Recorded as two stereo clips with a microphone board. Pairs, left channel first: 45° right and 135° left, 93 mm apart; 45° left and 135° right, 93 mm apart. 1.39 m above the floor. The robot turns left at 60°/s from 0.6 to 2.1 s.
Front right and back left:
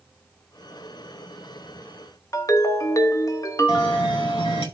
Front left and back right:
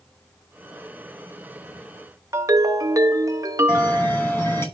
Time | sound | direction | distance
2.3 | a ringtone | 90° right | 1.0 m
3.7 | a bell | 20° right | 6 m